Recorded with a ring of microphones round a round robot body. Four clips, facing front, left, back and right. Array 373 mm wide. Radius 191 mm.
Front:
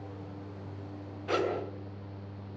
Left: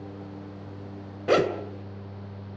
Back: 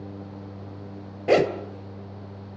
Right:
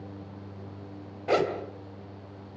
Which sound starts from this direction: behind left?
A zipper, at 1.3 s.